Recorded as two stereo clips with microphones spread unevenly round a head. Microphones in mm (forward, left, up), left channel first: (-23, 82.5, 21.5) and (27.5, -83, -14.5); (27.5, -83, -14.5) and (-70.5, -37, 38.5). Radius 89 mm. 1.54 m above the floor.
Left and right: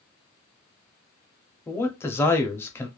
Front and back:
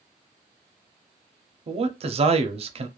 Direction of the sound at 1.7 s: 175° right.